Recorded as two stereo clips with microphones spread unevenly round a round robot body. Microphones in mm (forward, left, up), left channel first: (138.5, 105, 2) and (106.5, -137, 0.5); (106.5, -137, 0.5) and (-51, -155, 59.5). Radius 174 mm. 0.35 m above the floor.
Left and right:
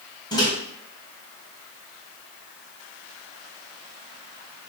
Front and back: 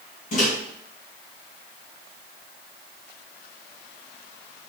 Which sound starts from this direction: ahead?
A microwave, at 0.3 s.